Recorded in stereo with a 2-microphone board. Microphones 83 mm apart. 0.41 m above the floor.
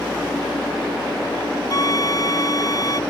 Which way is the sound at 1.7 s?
45° left (ahead or behind).